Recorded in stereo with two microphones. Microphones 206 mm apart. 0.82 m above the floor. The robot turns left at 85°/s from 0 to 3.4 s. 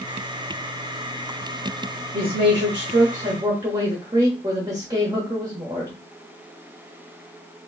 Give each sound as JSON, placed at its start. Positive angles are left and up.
{"t": 2.1, "sound": "a man speaking", "azimuth_deg": -50, "distance_m": 1.4}